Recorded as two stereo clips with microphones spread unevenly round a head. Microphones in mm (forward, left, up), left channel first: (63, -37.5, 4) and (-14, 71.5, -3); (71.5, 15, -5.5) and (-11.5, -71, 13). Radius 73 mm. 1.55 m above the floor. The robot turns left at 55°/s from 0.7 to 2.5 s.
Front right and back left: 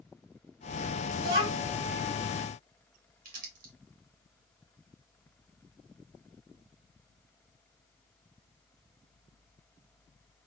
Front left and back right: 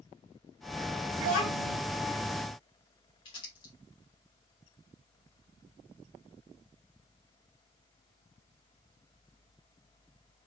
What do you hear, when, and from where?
1.2 s a child speaking: 165° left, 2.5 m; by 1.8 s 135° left, 2.5 m
3.2 s crumpling: 110° left, 1.5 m